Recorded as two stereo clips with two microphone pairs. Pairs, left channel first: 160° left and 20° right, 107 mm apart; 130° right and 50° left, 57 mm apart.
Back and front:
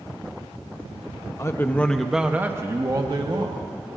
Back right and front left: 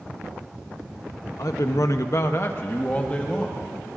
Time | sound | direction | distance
1.4 | a man speaking | 140° right | 0.9 m